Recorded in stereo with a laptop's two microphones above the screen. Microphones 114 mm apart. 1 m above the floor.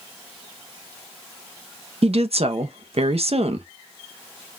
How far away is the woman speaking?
About 0.7 m.